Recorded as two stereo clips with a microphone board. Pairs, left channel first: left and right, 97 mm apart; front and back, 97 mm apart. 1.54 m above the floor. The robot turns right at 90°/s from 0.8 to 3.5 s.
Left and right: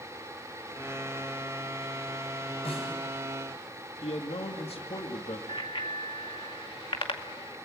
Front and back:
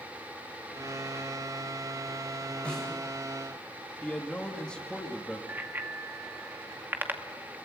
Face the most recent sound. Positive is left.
turn(degrees=110)